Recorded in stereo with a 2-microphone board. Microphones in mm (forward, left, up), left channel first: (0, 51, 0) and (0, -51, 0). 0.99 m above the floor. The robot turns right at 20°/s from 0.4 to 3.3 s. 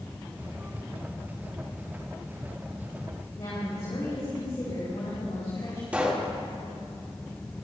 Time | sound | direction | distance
3.4 | a woman speaking | 60° left (ahead or behind) | 5.5 m
5.9 | a pop | 15° right (ahead or behind) | 1.8 m